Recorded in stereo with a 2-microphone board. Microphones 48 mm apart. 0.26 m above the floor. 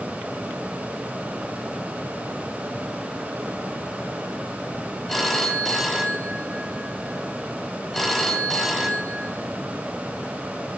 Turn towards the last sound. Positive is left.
turn(degrees=5)  # may be behind; listen again after turning